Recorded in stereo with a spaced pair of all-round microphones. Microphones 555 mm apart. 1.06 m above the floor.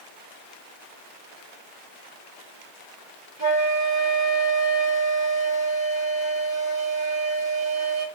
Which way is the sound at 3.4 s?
25° left (ahead or behind).